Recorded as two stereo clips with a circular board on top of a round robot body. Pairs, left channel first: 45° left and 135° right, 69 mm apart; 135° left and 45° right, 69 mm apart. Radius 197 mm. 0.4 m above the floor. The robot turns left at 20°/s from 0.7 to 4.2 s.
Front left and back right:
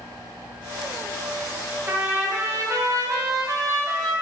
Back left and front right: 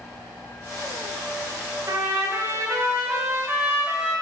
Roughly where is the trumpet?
Right.